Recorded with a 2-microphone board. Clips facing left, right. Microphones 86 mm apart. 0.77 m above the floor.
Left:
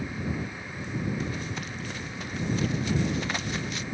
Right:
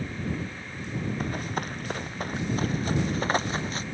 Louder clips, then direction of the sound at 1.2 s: Right 3 dB; 50° right (ahead or behind).